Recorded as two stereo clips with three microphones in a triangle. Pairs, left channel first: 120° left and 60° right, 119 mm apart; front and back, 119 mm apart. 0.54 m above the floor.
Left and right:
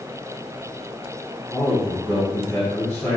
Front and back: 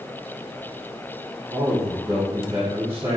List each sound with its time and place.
1.5 s a man speaking: straight behind, 1.4 m